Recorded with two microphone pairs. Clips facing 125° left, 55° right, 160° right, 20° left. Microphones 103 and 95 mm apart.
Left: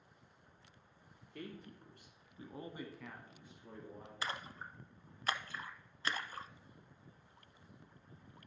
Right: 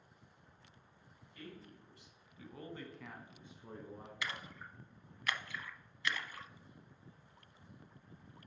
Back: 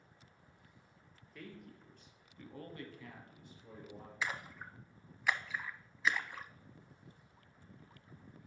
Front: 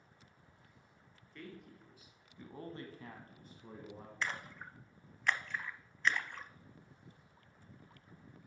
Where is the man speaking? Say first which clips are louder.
Left 3 dB, even; 115° left, 3 m; by 4.1 s 20° right, 2.5 m.